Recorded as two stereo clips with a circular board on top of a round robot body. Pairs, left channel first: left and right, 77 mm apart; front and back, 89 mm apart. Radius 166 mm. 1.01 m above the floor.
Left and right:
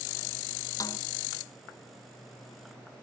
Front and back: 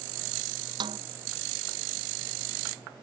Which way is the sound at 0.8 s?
140° left.